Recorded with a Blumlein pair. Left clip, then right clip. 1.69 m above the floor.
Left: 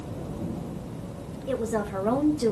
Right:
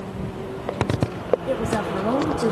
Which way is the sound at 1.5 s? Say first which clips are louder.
Right 4 dB; 5° right.